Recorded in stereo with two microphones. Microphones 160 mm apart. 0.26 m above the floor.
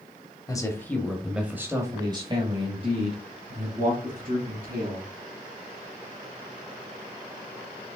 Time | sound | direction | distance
0.5 | a man speaking | 20° left (ahead or behind) | 1.0 m